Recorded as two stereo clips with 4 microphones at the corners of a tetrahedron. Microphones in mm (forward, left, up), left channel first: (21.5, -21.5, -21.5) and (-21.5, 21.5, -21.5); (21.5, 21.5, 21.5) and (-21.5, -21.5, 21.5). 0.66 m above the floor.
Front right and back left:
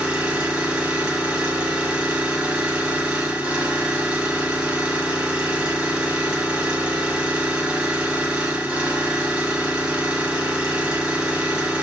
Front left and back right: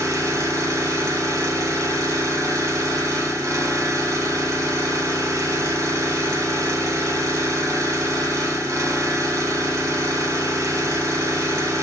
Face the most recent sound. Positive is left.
turn(degrees=-150)